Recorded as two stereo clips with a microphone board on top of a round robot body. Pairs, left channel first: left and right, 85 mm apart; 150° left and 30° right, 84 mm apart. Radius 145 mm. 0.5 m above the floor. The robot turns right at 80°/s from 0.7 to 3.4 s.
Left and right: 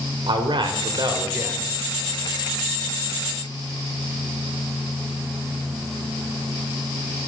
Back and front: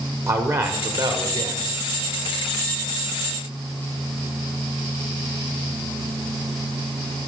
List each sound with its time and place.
0.3 s a man speaking: 80° right, 1.8 m; by 1.7 s straight ahead, 1.8 m